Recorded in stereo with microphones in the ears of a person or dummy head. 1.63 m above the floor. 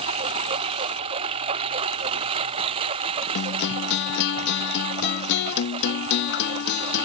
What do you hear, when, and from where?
0.0 s a lawn mower: 30° right (ahead or behind)
3.4 s a guitar: 60° left (ahead or behind)